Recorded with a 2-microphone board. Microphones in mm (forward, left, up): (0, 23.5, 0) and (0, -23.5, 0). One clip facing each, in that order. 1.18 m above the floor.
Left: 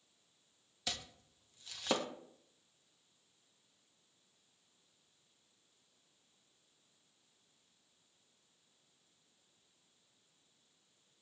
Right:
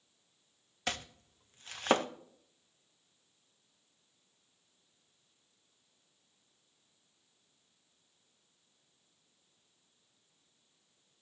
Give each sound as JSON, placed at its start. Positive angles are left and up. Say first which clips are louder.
{"t": 0.9, "sound": "chopping", "louder": "right 6 dB", "side_deg": -45, "distance_m": 0.7}